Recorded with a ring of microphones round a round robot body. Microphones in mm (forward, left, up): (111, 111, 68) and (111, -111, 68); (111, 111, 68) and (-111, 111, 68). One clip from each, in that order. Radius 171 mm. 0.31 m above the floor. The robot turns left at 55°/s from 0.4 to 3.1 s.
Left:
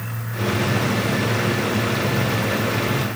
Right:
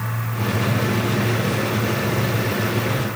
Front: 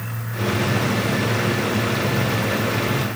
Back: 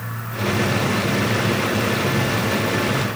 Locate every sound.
Only background noise.